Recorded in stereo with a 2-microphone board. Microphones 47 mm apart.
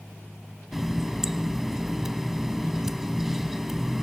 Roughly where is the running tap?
Centre.